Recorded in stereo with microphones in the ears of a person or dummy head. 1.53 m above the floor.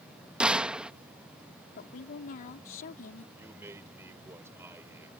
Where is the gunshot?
10° right (ahead or behind).